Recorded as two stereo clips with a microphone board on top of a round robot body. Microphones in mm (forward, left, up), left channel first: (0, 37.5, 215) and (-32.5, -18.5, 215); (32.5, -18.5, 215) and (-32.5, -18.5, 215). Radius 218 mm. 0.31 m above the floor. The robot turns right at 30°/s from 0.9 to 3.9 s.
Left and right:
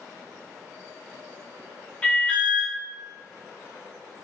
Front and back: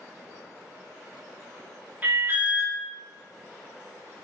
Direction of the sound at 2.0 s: 125° left.